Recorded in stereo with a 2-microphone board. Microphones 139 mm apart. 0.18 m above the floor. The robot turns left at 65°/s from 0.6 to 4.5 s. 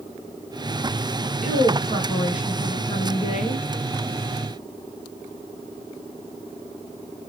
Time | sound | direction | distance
1.4 | a woman speaking | 110° right | 4 m